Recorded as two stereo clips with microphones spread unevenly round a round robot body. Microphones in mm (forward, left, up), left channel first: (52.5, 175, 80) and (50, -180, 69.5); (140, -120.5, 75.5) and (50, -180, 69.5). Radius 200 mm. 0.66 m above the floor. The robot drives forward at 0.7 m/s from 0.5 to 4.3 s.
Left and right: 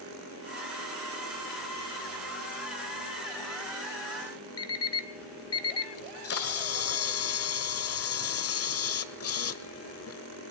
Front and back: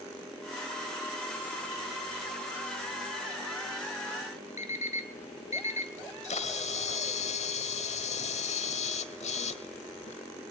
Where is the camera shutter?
40° left, 1.4 m.